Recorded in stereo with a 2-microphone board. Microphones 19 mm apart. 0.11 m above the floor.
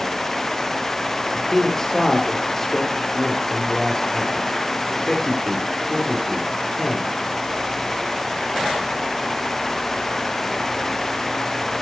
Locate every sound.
1.3 s a man speaking: 25° left (ahead or behind), 2 m